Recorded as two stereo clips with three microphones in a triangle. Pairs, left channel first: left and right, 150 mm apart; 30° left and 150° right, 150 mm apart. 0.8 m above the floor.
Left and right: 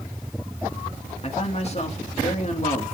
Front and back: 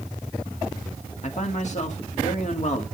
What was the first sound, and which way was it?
A man speaking, 55° left.